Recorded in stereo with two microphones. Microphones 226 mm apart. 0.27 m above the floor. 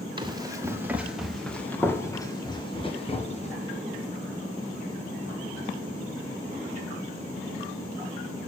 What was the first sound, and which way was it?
Running footsteps, 20° right (ahead or behind).